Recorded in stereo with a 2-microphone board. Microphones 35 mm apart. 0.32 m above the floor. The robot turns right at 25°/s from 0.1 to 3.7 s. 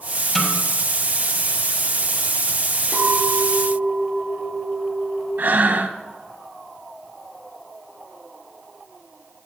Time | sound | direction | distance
0.3 | a snare drum | 15° left (ahead or behind) | 2.5 m
2.9 | a clink | 45° left (ahead or behind) | 3.5 m
5.4 | breathing | 65° right (ahead or behind) | 0.7 m